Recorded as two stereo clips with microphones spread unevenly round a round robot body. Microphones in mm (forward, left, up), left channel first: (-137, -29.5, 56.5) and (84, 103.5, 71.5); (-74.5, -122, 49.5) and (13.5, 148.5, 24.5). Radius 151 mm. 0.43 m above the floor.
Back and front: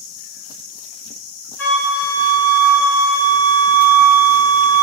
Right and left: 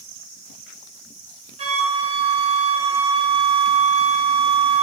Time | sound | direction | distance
1.6 | a flute | 135° left | 0.9 m